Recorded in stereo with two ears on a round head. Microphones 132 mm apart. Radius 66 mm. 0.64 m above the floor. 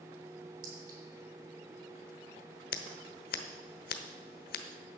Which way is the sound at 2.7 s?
70° left (ahead or behind).